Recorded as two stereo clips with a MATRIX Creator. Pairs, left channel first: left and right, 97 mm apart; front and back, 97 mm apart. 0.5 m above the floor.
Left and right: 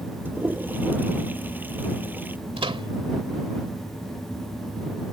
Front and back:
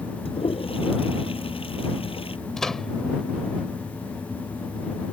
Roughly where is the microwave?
Right.